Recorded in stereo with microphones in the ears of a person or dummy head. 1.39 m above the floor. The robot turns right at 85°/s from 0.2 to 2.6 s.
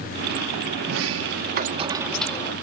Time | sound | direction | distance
0.8 | a sliding door | 115° right | 1.9 m